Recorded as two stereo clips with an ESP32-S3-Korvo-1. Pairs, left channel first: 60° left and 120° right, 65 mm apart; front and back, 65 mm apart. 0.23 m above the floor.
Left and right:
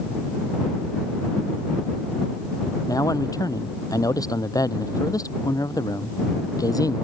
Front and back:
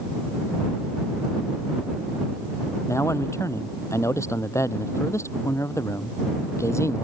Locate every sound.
2.9 s a man speaking: 40° left